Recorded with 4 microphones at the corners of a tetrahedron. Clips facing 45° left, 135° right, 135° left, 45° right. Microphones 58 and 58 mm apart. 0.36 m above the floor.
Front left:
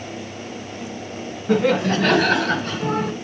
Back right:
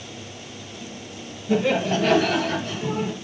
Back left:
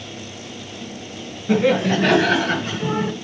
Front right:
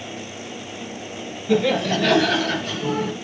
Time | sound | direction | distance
1.5 | laughter | 75° left | 4 m